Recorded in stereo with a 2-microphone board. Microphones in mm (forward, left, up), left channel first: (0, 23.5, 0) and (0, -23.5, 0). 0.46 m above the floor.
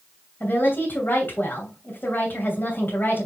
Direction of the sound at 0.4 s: 50° left (ahead or behind).